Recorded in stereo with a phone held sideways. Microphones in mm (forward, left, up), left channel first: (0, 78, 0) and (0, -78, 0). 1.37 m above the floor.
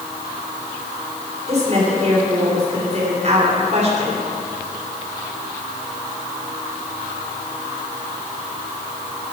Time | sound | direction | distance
1.5 | a woman speaking | 45° right (ahead or behind) | 4 m